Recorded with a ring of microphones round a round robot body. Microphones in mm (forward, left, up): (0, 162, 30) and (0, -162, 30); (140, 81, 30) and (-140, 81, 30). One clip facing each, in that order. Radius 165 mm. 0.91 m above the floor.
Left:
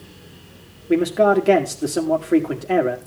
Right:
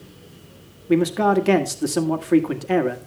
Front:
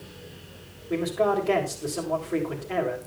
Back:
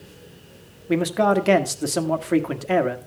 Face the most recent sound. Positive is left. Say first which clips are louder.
# left 1 dB, back 5 dB
turn(degrees=-165)